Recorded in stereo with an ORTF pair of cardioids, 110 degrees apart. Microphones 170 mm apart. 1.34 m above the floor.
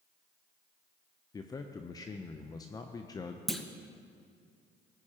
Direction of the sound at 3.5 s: Straight ahead.